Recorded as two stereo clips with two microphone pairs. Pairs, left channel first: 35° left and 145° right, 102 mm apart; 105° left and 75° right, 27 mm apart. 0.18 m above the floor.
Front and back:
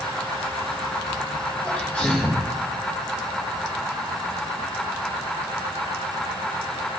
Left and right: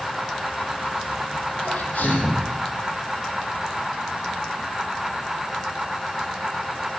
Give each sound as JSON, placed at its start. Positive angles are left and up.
{"t": 1.6, "sound": "a sneeze", "azimuth_deg": 110, "distance_m": 7.0}